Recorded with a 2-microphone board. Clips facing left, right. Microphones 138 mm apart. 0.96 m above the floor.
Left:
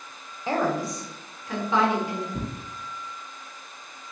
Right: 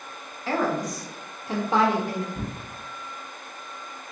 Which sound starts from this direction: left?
Tearing paper, at 2.3 s.